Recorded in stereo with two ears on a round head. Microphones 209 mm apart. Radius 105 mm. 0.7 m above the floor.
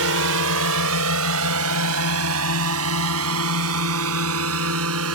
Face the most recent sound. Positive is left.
turn(degrees=-70)  # may be behind; listen again after turning